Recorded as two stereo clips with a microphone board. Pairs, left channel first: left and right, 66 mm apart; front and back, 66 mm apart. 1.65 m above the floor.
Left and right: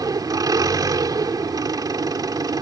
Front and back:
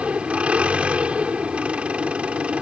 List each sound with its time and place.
0.0 s an engine running: 110° right